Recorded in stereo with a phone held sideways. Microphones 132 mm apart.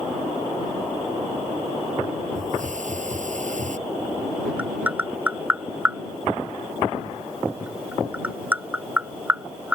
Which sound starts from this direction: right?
A hiss, at 2.4 s.